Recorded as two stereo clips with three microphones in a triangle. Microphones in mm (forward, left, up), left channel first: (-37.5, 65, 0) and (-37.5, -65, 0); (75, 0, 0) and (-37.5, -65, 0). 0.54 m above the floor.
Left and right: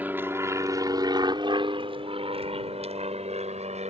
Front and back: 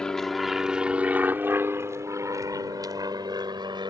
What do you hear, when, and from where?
0.0 s an aircraft: 45° right; by 3.9 s 100° right